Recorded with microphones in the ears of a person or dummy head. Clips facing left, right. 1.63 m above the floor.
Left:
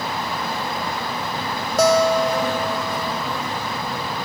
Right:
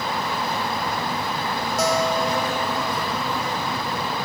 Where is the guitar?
55° left (ahead or behind).